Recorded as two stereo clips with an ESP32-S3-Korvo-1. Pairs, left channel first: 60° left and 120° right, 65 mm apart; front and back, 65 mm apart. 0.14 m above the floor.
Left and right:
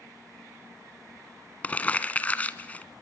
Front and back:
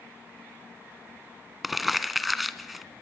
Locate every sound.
1.6 s crumpling: 95° left, 1.1 m